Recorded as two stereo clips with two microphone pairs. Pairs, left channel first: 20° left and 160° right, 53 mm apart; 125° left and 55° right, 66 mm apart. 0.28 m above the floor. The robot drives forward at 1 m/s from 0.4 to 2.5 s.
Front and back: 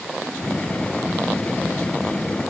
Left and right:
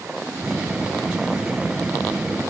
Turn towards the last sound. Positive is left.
No sound to turn to.